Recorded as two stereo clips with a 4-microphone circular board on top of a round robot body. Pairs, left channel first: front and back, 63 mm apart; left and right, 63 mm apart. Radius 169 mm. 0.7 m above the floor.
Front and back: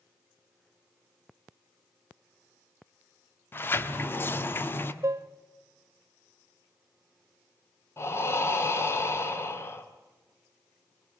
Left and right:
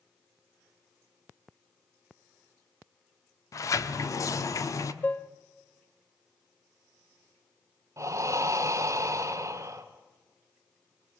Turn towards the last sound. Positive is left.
turn(degrees=-50)